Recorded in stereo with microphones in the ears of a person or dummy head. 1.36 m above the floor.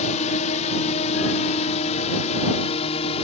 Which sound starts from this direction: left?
A drone, at 0.0 s.